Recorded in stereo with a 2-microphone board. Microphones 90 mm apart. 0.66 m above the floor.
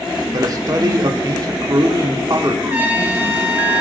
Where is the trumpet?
20° right (ahead or behind), 1.5 m.